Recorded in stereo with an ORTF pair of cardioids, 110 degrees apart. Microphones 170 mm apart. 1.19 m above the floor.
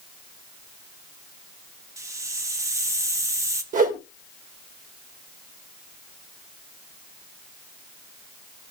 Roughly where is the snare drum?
I don't hear a snare drum.